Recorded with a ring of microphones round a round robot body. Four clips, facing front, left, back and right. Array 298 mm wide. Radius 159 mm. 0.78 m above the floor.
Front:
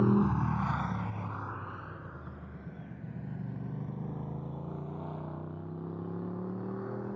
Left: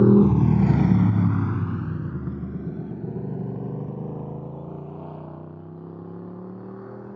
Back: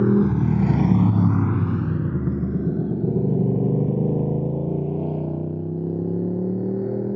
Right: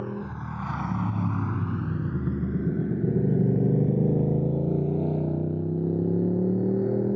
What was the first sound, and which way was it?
A motorcycle, 110° left.